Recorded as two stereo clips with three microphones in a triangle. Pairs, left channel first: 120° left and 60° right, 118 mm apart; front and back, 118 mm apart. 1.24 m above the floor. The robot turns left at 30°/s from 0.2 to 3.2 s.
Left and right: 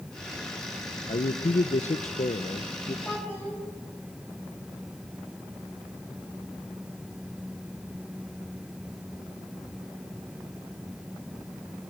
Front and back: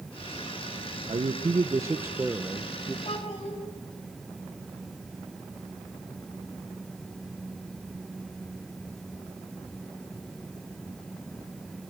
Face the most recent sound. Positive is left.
turn(degrees=35)